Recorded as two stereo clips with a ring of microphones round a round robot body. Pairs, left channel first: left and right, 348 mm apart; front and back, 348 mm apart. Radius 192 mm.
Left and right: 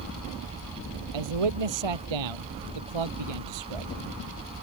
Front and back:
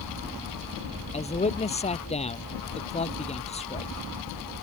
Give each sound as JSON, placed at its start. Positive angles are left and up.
{"t": 1.1, "sound": "a man speaking", "azimuth_deg": -70}